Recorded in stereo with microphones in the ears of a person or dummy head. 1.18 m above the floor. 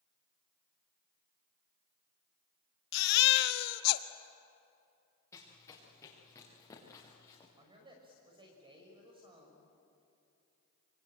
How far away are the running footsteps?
About 6.5 m.